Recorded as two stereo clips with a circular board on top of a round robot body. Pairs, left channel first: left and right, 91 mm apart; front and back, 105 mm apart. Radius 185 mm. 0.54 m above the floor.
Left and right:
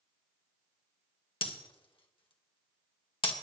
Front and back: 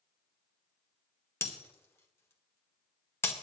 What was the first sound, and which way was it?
Breaking glass, 65° left.